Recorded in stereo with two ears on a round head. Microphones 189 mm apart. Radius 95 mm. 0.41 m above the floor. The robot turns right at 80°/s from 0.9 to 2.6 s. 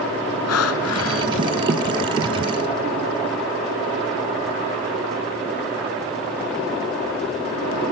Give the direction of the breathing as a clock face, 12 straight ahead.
9 o'clock.